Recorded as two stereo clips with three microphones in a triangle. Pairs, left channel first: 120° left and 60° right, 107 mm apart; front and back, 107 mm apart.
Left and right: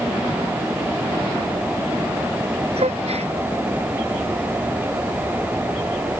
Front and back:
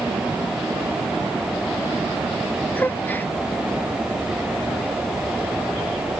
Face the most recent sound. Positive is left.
turn(degrees=-70)